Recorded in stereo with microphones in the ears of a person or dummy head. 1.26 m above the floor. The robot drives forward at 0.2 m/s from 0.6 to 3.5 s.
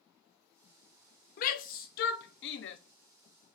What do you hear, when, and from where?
1.4 s a shout: 45° left (ahead or behind), 0.6 m; by 2.8 s 60° left (ahead or behind), 0.5 m